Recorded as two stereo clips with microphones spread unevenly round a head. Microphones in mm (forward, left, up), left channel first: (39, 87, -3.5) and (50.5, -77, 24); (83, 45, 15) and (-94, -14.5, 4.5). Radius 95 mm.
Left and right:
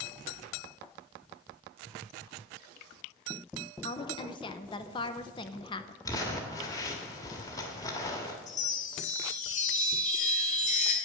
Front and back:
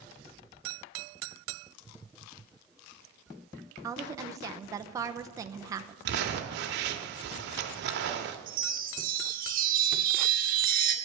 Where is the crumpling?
170° left, 1.2 m.